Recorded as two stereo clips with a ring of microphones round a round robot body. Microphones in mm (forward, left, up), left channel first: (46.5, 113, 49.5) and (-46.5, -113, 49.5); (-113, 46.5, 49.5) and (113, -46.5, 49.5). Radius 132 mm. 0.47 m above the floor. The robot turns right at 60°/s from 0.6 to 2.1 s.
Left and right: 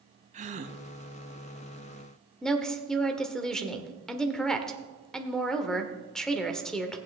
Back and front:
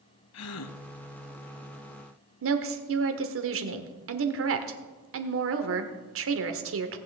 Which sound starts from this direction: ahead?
A woman speaking, at 2.4 s.